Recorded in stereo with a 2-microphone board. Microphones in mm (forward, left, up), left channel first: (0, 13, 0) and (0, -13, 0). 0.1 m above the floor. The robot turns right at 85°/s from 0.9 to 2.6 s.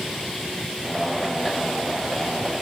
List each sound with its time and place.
Only background noise.